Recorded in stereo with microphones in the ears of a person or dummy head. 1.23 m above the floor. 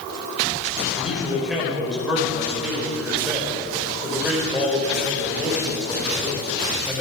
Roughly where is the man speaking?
Centre.